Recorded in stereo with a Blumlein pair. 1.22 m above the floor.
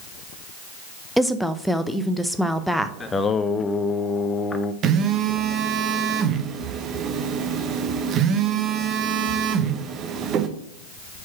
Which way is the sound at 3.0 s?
15° left.